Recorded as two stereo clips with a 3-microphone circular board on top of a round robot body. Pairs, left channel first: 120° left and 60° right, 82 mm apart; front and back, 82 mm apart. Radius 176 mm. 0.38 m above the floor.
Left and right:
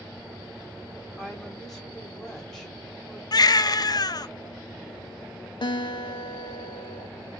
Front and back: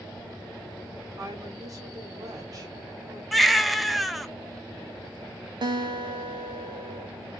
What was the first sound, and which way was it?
A woman speaking, 155° right.